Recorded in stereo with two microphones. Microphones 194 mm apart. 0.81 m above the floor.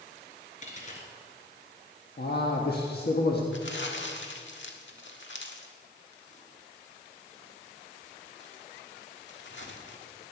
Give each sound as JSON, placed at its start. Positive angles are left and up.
{"t": 0.6, "sound": "a dropped coin", "side_deg": 40, "distance_m": 2.5}
{"t": 2.2, "sound": "a man speaking", "side_deg": 55, "distance_m": 1.4}
{"t": 3.5, "sound": "crumpling", "side_deg": 70, "distance_m": 1.6}